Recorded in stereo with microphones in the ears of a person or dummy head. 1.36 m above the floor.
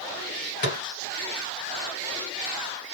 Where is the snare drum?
40° left (ahead or behind), 1.7 m.